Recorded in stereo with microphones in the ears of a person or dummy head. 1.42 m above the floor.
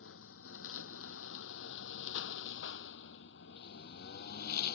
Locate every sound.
0.0 s a lawn mower: 80° left; by 4.8 s 60° left (ahead or behind)